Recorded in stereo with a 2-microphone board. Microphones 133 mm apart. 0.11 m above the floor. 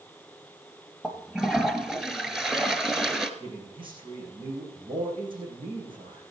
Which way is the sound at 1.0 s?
5° right (ahead or behind).